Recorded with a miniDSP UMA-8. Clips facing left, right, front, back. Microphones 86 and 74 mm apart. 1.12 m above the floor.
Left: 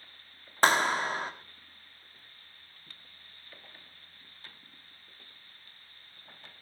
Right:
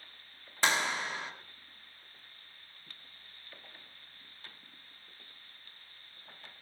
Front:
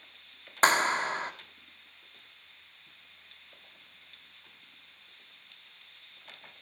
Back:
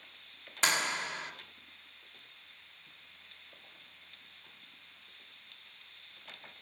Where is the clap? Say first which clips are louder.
Left 6 dB, front 8 dB; 45° left, 1.8 m.